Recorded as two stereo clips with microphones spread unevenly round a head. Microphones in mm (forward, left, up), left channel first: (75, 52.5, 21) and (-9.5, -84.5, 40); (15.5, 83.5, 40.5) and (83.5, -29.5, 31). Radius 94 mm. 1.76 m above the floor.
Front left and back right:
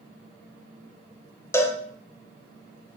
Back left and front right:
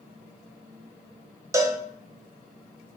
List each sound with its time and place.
1.5 s a cowbell: 15° right, 0.8 m